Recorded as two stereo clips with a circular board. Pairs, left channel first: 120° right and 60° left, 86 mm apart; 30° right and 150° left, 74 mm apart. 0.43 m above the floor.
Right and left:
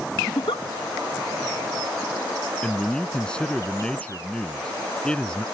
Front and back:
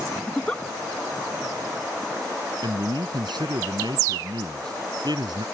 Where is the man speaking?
160° left.